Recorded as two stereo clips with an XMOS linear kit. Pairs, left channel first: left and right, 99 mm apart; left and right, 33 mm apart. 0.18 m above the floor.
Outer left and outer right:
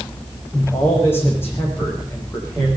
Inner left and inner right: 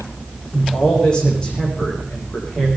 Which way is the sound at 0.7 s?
25° left (ahead or behind).